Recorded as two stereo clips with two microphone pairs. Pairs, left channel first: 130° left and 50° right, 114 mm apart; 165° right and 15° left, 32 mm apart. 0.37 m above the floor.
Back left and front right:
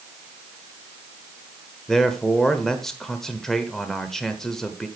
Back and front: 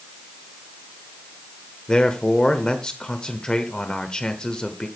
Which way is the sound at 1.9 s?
145° right.